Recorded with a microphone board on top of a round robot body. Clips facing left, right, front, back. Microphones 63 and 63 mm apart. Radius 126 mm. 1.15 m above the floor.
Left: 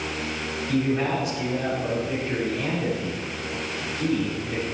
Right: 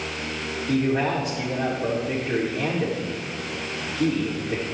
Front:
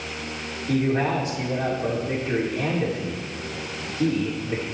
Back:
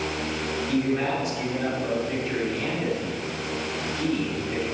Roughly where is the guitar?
No guitar in this recording.